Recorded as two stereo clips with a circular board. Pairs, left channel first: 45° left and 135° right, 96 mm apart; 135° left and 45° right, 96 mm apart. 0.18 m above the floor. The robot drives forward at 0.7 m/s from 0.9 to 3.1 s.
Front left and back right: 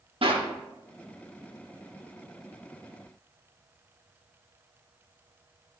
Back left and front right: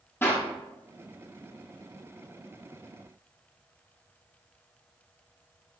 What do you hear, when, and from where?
0.2 s a clap: 155° right, 4.5 m